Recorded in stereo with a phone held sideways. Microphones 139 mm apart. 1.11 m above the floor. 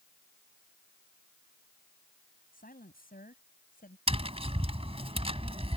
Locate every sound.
2.5 s a woman speaking: 85° left; by 4.0 s 80° left
4.1 s tapping: 40° right (ahead or behind)